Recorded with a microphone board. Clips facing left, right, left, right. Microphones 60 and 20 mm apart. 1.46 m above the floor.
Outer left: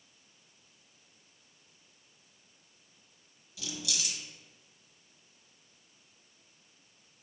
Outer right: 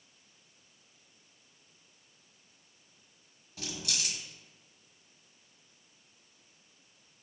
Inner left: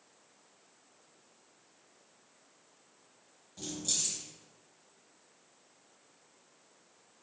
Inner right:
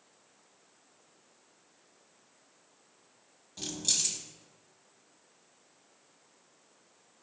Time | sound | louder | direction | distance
3.6 | keys jangling | even, inner right 4 dB | 40° right (ahead or behind) | 1.1 m